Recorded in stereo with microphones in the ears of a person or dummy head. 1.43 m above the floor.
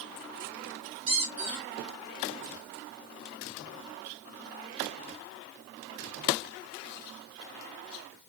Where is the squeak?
25° right (ahead or behind), 1.1 m.